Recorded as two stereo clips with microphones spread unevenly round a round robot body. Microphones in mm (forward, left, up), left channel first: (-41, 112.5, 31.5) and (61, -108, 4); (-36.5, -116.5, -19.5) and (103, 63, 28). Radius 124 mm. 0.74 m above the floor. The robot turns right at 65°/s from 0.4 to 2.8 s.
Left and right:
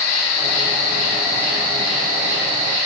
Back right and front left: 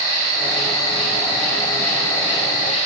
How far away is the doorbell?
I don't hear a doorbell.